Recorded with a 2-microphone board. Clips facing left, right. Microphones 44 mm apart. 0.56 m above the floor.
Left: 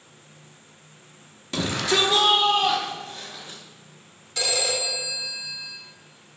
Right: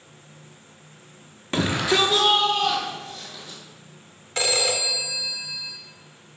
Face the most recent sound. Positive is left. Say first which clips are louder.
# right 2 dB
turn(degrees=-45)  # may be behind; listen again after turning